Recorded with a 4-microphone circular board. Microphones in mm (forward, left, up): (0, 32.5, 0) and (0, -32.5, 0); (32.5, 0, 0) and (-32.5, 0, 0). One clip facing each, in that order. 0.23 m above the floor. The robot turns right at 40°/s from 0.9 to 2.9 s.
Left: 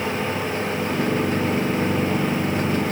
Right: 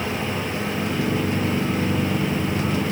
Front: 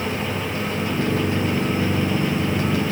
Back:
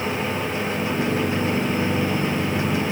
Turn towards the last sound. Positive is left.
No sound to turn to.